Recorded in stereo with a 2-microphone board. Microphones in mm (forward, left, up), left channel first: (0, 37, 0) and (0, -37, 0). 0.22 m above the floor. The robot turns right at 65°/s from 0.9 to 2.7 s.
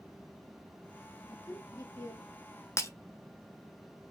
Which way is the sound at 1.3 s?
90° left.